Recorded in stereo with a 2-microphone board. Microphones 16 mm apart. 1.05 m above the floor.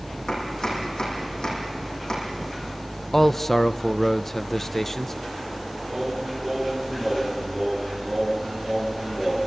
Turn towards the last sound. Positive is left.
turn(degrees=0)  # may be behind; listen again after turning